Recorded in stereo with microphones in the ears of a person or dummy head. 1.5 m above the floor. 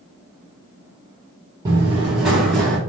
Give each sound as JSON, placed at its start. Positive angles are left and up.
{"t": 1.6, "sound": "running footsteps", "side_deg": -20, "distance_m": 1.6}